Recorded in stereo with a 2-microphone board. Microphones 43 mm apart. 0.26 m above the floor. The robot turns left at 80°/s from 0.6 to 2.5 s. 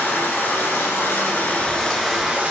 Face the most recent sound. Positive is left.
turn(degrees=-40)